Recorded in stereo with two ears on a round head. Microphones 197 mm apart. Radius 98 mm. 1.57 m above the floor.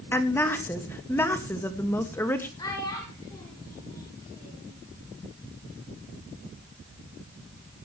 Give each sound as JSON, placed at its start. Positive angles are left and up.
{"t": 0.1, "sound": "a woman speaking", "side_deg": 10, "distance_m": 1.9}
{"t": 2.6, "sound": "a child speaking", "side_deg": 20, "distance_m": 7.5}